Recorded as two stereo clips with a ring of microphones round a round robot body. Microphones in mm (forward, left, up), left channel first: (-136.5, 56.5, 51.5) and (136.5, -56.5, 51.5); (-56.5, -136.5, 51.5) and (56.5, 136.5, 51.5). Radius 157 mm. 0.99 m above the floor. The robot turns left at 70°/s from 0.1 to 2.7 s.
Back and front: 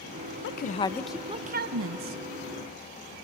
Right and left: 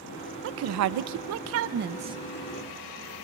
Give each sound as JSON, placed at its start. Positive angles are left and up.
{"t": 0.4, "sound": "a woman speaking", "azimuth_deg": 110, "distance_m": 0.7}